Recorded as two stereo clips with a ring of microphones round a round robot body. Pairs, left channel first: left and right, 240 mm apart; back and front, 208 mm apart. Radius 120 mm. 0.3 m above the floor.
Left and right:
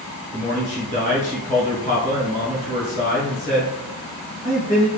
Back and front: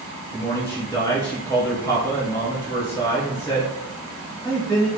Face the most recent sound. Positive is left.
turn(degrees=120)